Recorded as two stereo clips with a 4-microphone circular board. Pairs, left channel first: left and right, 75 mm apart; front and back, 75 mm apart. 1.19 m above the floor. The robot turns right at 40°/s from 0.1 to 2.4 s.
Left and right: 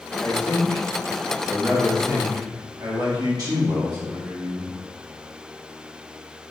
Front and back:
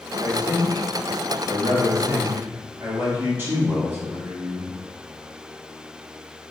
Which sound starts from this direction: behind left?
A man speaking, at 0.2 s.